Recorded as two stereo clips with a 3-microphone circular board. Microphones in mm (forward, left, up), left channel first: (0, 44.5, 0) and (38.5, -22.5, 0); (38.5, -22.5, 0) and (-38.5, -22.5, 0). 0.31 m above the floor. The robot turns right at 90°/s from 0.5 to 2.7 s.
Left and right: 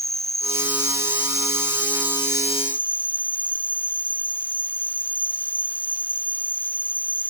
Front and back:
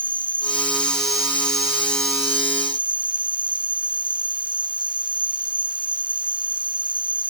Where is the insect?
10° right; by 7.3 s 170° right.